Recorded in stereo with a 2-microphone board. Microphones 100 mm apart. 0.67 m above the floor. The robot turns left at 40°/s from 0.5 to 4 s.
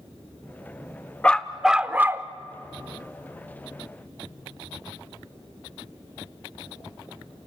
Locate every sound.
1.2 s a dog barking: 10° left, 0.5 m; by 2.3 s 30° right, 0.5 m